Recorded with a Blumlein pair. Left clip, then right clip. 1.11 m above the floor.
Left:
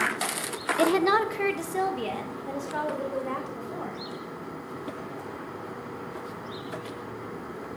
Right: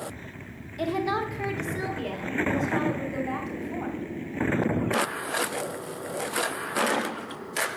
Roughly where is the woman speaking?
Ahead left.